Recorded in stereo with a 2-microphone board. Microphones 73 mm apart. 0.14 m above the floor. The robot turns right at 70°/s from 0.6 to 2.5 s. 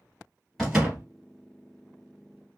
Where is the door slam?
Straight behind, 2 m; by 1.1 s 150° right, 2 m.